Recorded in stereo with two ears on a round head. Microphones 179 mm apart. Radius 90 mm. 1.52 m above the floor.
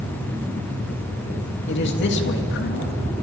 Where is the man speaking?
60° left (ahead or behind), 3 m.